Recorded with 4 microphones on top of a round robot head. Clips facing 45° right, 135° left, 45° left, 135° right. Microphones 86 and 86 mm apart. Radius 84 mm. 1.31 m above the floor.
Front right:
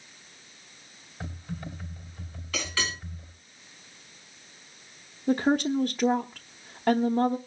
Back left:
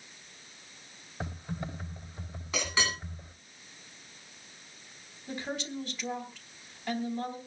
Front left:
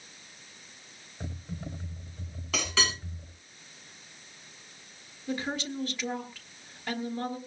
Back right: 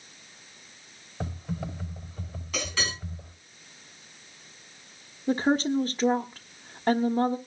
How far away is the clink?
About 8.5 m.